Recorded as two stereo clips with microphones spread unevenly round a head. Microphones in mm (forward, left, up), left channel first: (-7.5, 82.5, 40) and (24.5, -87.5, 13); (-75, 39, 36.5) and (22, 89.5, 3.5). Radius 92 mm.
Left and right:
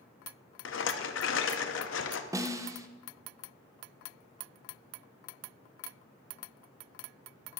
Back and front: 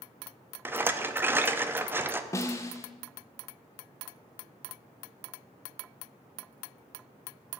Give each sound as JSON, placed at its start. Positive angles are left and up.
{"t": 0.7, "sound": "a rattle", "azimuth_deg": 105, "distance_m": 0.7}
{"t": 2.3, "sound": "a snare drum", "azimuth_deg": -80, "distance_m": 0.6}